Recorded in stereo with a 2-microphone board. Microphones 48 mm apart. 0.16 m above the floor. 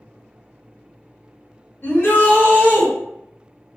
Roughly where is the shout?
Left.